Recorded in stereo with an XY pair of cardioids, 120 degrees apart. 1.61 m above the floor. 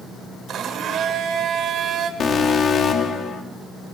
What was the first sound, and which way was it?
A blender, 65° right.